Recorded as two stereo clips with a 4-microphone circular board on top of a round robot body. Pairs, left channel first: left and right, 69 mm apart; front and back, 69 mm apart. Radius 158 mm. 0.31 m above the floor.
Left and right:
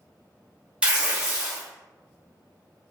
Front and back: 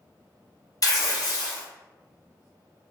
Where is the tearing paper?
20° right, 1.0 m.